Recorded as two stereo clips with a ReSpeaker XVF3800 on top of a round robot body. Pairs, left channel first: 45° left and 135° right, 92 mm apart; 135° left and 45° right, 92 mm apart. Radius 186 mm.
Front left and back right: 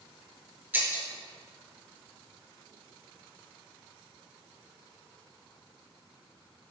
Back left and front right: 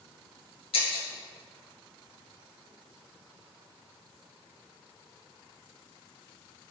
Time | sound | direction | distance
0.7 | breaking glass | 155° left | 5 m